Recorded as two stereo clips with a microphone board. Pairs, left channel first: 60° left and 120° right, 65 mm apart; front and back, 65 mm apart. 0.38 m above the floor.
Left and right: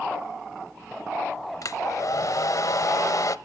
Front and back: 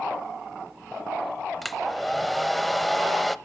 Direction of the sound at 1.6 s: 90° left.